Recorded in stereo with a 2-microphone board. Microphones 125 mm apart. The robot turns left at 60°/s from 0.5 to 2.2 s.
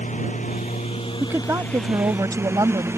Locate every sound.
0.0 s a lawn mower: 85° left; by 3.0 s 20° right (ahead or behind)
1.2 s a woman speaking: 35° right; by 2.9 s 95° right